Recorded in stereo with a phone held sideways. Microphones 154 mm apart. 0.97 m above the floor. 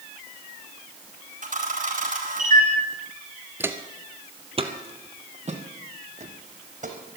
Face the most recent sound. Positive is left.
turn(degrees=-55)  # may be behind; listen again after turning